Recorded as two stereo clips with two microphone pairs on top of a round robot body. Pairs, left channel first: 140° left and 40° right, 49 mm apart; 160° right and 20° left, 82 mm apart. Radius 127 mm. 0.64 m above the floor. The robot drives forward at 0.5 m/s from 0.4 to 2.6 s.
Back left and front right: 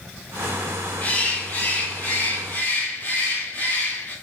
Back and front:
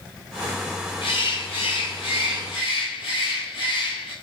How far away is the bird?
About 3 m.